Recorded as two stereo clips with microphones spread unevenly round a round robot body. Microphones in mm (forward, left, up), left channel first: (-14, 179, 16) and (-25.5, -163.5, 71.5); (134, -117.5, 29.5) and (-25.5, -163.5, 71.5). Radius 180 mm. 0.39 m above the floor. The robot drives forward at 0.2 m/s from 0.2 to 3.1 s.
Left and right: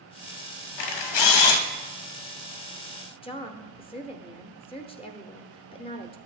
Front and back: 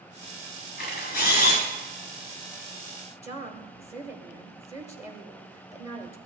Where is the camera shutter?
70° left, 0.9 m; by 1.6 s 80° left, 0.8 m.